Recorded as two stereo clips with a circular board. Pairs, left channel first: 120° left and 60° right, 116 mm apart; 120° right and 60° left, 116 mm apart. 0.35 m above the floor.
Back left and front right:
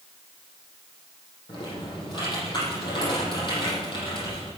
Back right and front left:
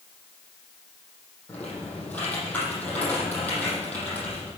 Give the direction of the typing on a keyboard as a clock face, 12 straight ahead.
7 o'clock.